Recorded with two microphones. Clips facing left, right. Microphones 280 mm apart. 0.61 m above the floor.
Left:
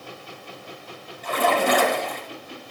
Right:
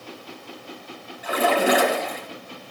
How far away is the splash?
About 3.5 m.